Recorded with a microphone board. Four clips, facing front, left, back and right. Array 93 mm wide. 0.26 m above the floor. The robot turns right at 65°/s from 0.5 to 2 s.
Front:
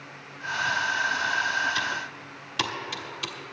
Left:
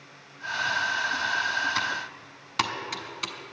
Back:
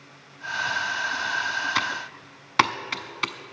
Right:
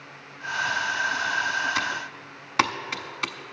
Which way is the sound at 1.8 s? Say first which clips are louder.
Right 1 dB, back 2 dB; 175° right.